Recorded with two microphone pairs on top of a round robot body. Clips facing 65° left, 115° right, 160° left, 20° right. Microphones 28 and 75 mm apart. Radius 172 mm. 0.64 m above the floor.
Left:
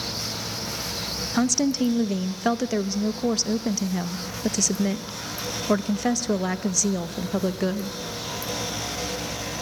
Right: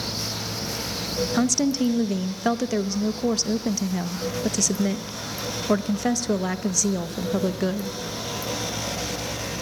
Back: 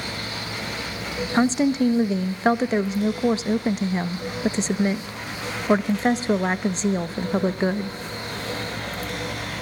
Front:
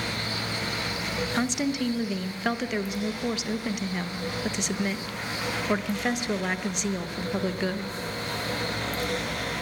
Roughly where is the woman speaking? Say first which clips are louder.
Left 1 dB, back 9 dB; behind left.